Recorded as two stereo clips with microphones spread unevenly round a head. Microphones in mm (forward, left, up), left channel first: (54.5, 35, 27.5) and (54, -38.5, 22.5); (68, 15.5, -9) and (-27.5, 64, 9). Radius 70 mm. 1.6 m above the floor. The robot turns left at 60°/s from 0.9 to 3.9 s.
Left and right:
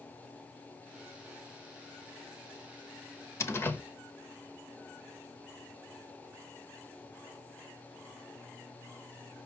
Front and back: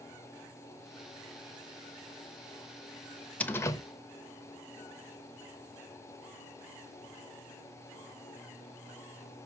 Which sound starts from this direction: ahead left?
A door slam, at 3.4 s.